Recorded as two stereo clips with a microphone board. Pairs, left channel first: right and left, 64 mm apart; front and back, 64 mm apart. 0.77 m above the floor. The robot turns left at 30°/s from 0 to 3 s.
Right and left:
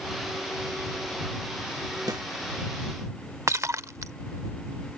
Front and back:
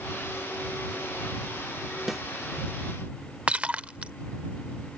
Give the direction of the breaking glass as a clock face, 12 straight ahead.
8 o'clock.